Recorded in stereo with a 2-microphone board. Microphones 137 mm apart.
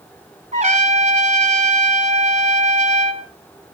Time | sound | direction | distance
0.5 | a trumpet | 50° right (ahead or behind) | 2.5 m